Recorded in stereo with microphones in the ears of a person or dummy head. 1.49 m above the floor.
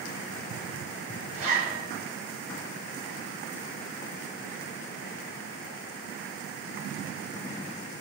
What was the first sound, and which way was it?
A zipper, 45° right (ahead or behind).